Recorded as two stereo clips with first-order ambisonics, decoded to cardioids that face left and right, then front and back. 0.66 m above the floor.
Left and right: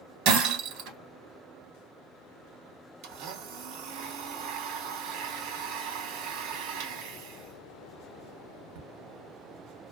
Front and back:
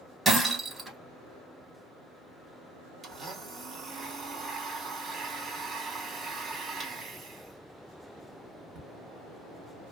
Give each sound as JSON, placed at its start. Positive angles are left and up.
{"t": 0.2, "sound": "breaking glass", "azimuth_deg": -105, "distance_m": 1.3}
{"t": 3.0, "sound": "a blender", "azimuth_deg": -115, "distance_m": 0.8}